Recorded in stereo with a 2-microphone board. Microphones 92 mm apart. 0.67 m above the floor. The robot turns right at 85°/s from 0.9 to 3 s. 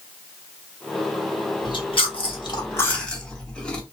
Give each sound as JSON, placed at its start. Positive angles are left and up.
{"t": 1.6, "sound": "chewing", "side_deg": 50, "distance_m": 0.7}